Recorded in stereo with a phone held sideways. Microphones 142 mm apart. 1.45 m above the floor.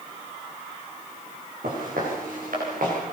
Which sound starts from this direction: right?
Footsteps, at 1.6 s.